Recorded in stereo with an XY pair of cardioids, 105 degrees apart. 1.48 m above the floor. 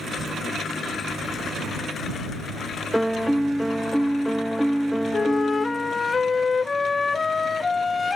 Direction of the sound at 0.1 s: 60° right.